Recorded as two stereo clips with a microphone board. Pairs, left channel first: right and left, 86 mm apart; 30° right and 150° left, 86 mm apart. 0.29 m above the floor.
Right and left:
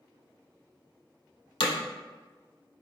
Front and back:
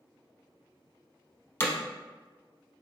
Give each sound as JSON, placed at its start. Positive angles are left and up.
{"t": 1.6, "sound": "hammering", "azimuth_deg": -90, "distance_m": 0.6}